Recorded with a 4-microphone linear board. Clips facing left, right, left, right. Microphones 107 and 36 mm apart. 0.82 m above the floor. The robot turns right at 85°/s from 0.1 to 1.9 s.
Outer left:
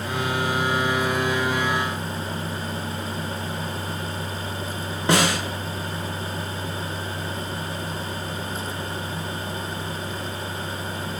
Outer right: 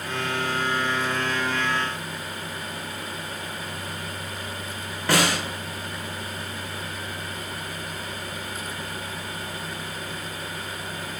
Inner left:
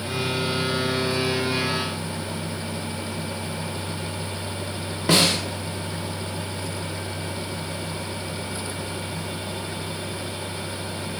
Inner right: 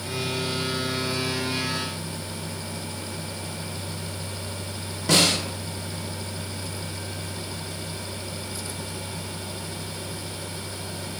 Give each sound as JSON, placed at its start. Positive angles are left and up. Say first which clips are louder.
{"t": 5.1, "sound": "a snare drum", "louder": "outer left 2 dB, inner left 1 dB", "side_deg": 25, "distance_m": 0.6}